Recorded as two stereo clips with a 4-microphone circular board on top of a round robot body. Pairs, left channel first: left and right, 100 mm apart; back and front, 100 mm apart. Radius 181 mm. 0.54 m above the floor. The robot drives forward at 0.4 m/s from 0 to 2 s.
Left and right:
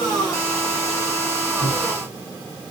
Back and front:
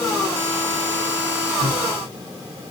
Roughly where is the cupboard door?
Behind left.